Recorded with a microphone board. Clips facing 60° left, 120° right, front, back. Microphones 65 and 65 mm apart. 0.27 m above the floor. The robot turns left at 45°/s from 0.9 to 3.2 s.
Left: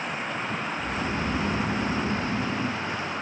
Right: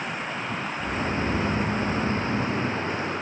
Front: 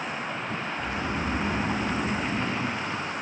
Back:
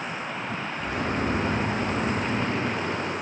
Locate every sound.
0.8 s snoring: 70° left, 3 m; by 2.8 s 20° right, 3 m